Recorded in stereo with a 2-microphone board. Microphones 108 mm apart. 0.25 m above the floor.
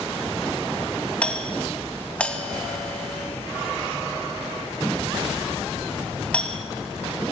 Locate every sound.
1.2 s a doorbell: 10° left (ahead or behind), 2 m